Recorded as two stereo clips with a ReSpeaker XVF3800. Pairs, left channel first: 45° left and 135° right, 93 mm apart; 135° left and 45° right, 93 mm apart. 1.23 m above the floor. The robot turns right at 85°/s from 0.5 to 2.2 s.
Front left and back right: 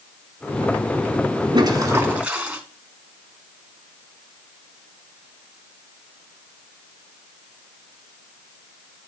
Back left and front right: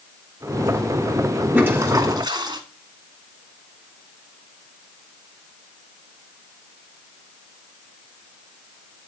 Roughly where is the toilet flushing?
Behind right.